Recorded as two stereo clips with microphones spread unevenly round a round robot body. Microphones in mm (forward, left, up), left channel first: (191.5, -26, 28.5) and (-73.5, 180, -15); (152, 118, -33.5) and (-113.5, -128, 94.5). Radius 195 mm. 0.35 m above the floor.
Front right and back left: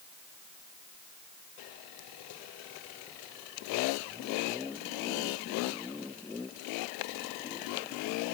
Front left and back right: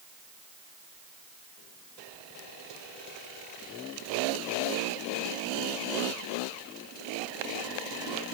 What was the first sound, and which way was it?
Only background noise.